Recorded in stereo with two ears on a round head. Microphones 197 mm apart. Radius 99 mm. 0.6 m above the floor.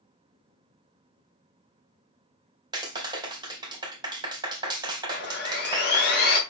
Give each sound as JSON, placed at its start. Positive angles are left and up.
{"t": 2.7, "sound": "a clap", "side_deg": -20, "distance_m": 2.0}
{"t": 5.1, "sound": "sawing", "side_deg": 50, "distance_m": 4.0}